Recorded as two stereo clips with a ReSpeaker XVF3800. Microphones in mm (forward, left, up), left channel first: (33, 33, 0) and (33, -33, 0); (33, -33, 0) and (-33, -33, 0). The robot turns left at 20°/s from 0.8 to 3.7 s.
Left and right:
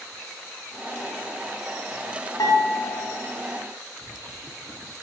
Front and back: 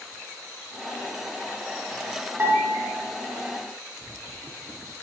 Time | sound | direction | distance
2.4 | dishes clattering | 115° left | 2 m